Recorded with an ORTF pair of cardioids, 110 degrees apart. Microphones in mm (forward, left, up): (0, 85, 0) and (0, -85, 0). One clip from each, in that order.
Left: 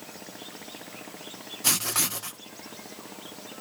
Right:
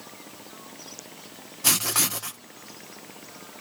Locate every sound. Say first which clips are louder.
1.6 s writing: right 3 dB; 15° right